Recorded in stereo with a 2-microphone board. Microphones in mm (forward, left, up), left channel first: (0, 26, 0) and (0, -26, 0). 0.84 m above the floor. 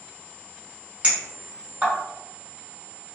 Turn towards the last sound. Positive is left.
turn(degrees=-25)  # may be behind; listen again after turning